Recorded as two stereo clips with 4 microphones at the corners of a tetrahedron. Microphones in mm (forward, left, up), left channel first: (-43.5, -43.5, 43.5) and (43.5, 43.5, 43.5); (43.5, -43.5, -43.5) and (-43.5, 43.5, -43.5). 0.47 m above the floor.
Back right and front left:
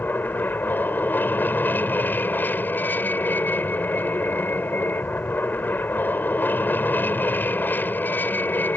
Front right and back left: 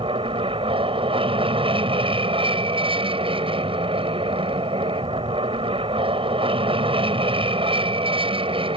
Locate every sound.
0.0 s an aircraft: 155° left